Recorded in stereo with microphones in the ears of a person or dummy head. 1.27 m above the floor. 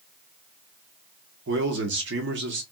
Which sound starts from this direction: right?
A man speaking, at 1.5 s.